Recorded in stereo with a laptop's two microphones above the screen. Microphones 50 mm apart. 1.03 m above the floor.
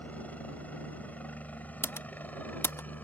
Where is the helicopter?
30° left (ahead or behind); by 3.0 s 35° left (ahead or behind).